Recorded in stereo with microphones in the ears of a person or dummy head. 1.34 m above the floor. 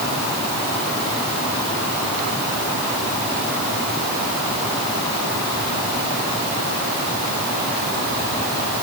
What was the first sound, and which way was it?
Only background noise.